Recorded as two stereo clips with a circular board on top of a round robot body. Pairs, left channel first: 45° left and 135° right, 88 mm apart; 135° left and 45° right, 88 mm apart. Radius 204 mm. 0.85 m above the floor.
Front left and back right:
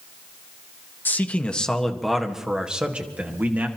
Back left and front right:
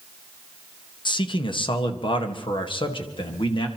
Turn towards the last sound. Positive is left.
turn(degrees=155)